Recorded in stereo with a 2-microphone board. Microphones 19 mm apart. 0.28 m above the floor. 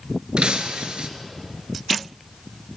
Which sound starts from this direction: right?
Breaking glass, at 0.4 s.